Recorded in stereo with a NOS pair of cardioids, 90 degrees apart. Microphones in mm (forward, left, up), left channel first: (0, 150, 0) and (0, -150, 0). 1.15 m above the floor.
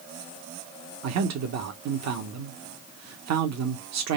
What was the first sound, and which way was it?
A man speaking, 65° right.